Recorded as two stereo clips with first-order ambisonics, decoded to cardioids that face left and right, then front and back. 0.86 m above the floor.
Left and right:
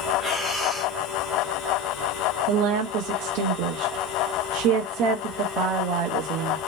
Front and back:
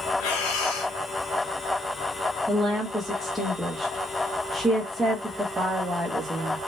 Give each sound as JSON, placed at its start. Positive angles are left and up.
{"t": 0.2, "sound": "breathing", "azimuth_deg": 10, "distance_m": 1.2}
{"t": 2.5, "sound": "a woman speaking", "azimuth_deg": -95, "distance_m": 0.9}